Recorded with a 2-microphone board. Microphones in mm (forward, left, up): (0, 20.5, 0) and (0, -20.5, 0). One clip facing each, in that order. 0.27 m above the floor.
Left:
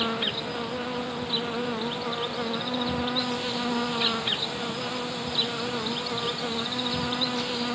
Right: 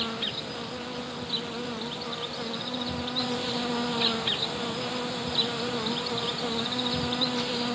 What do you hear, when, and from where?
0.0 s an insect: 25° left (ahead or behind)